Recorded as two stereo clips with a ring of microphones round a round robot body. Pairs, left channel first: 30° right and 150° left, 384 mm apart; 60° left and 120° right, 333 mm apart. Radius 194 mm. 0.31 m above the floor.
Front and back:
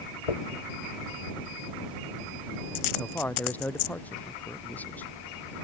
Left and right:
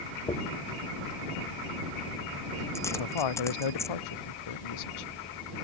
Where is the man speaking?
55° left.